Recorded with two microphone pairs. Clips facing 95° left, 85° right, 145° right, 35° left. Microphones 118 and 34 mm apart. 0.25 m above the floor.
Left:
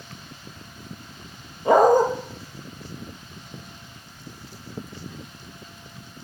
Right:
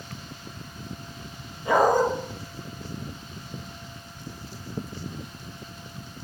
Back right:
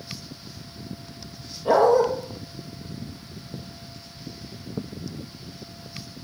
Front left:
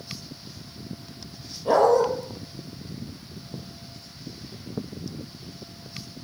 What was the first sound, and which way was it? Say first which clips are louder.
A dog barking: left 5 dB, back right 1 dB; 140° left.